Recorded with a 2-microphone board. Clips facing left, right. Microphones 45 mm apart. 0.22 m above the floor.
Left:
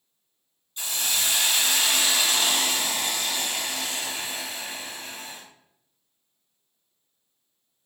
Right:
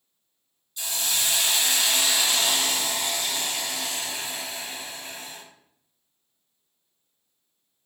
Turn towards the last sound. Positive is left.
turn(degrees=35)  # may be behind; listen again after turning